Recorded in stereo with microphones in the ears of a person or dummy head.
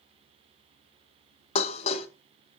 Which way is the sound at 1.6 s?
35° left (ahead or behind).